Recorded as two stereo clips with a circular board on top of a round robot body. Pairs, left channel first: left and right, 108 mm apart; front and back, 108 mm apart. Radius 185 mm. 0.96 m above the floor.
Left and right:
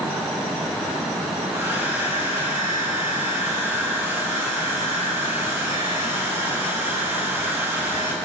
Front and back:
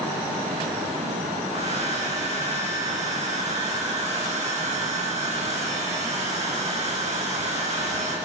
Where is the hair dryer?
160° right, 6.5 m.